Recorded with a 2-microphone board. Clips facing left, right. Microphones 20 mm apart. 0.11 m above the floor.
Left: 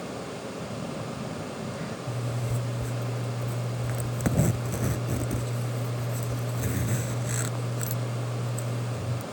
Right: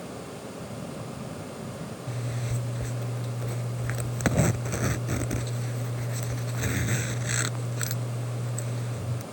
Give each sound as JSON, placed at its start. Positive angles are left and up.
{"t": 0.6, "sound": "a phone buzzing", "side_deg": 45}
{"t": 2.1, "sound": "a zipper", "side_deg": -40}